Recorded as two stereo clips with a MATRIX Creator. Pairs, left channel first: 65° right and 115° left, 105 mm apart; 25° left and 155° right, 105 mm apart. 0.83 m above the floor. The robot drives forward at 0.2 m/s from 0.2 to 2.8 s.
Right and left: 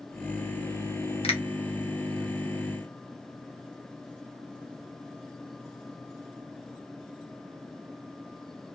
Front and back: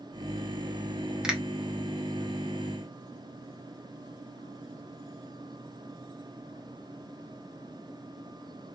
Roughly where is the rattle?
No rattle in this recording.